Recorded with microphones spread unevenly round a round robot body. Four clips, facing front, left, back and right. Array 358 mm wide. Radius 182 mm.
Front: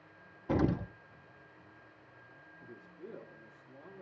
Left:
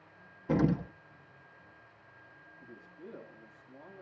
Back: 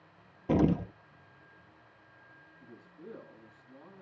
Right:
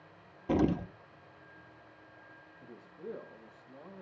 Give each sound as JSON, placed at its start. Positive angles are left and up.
{"t": 0.5, "sound": "an explosion", "azimuth_deg": -145, "distance_m": 0.8}
{"t": 2.6, "sound": "a man speaking", "azimuth_deg": -165, "distance_m": 5.0}